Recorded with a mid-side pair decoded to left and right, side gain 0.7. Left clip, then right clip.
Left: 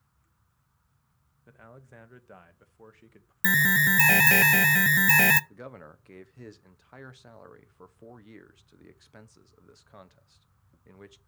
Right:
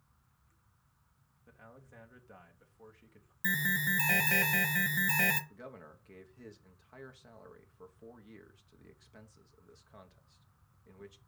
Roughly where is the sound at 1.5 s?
Ahead left.